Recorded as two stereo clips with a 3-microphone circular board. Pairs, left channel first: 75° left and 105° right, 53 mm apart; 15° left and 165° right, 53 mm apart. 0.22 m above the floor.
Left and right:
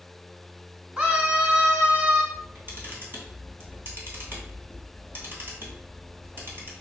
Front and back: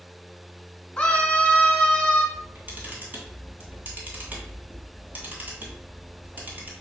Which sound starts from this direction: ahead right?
A scream, at 1.0 s.